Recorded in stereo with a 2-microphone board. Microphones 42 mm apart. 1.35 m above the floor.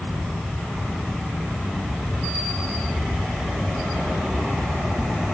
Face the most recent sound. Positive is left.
No sound to turn to.